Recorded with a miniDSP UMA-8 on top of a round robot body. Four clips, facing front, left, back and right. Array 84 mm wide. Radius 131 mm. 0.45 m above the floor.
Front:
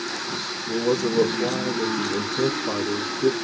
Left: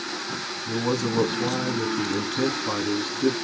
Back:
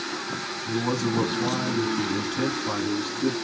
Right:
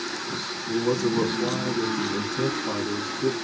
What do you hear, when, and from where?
0.7 s a man speaking: 130° left, 1.8 m